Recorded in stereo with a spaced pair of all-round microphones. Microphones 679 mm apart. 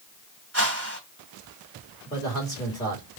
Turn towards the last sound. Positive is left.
turn(degrees=5)  # may be behind; listen again after turning